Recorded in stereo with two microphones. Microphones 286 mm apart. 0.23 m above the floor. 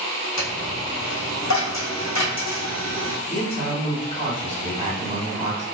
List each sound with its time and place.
0.4 s a dropped coin: 70° left (ahead or behind), 1.2 m
3.3 s a man speaking: 20° right (ahead or behind), 1.6 m